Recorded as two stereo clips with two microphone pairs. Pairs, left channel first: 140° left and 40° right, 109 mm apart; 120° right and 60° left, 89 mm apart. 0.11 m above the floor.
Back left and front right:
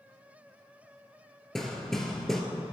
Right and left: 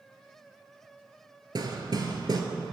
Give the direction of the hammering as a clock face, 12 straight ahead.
10 o'clock.